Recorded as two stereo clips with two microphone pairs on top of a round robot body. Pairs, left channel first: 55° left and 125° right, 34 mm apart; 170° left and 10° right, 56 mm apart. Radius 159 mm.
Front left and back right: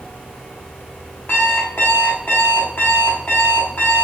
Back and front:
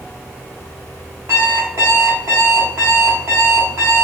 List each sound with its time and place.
1.3 s an alarm clock: 20° left, 0.9 m